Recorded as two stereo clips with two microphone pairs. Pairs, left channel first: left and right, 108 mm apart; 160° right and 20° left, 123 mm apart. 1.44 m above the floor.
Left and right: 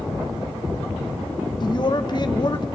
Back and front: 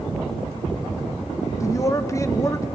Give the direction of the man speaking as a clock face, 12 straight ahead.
8 o'clock.